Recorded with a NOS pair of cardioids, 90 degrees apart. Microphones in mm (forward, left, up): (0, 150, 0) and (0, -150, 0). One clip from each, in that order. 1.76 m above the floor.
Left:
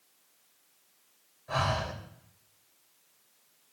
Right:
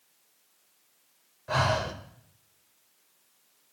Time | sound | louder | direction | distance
1.5 | breathing | right 4 dB | 50° right | 2.0 m